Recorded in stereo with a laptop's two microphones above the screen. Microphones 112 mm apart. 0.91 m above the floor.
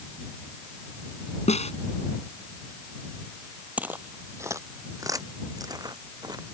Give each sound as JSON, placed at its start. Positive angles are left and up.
{"t": 1.5, "sound": "a snare drum", "side_deg": 80}
{"t": 3.8, "sound": "footsteps", "side_deg": -15}